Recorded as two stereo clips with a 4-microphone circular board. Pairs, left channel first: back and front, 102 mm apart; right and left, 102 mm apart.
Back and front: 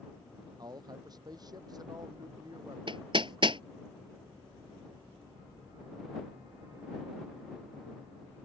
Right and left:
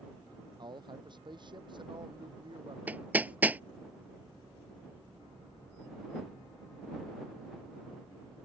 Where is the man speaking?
50° left.